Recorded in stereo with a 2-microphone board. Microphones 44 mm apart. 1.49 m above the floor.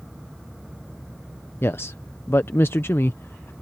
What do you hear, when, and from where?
1.6 s a man speaking: 65° left (ahead or behind)